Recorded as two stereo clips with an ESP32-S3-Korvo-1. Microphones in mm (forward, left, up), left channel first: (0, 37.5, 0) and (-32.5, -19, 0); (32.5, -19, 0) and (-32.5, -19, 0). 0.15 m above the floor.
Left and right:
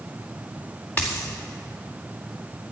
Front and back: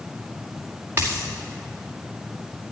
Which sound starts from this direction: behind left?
A dropped coin, at 1.0 s.